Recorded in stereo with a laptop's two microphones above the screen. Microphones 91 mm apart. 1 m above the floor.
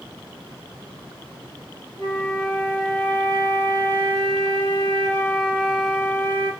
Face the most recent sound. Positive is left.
turn(degrees=15)  # may be behind; listen again after turning